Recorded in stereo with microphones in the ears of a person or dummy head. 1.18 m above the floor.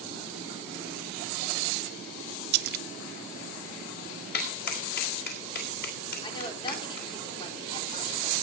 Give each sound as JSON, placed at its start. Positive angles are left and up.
{"t": 2.5, "sound": "a splash", "side_deg": -55, "distance_m": 0.6}
{"t": 4.3, "sound": "a clap", "side_deg": 45, "distance_m": 3.0}
{"t": 6.2, "sound": "a woman speaking", "side_deg": 30, "distance_m": 3.5}